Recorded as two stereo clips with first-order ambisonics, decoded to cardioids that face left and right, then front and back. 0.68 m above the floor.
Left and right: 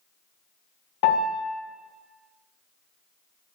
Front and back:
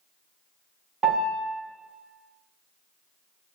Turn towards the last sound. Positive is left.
turn(degrees=110)